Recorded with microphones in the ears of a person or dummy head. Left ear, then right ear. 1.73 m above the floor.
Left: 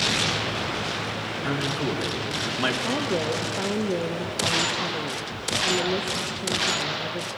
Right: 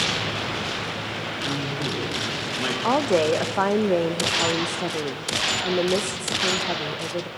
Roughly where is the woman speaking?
Right.